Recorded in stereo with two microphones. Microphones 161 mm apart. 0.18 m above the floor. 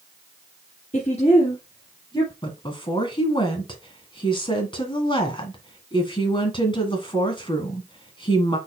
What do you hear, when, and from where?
0.9 s a woman speaking: 50° left (ahead or behind), 2.5 m; by 2.3 s 25° left (ahead or behind), 3.5 m
2.4 s a woman speaking: 30° left (ahead or behind), 1.9 m